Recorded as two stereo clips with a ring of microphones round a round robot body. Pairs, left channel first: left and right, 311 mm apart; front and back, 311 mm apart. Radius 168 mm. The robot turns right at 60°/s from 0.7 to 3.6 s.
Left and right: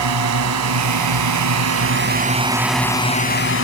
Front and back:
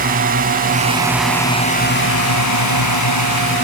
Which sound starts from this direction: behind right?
A drone, at 0.0 s.